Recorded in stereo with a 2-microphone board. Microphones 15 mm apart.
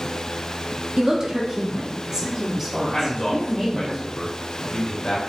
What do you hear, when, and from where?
1.0 s a woman speaking: 40° right (ahead or behind), 0.9 m; by 3.9 s 15° right (ahead or behind), 1.8 m
2.9 s a man speaking: 65° left (ahead or behind), 2 m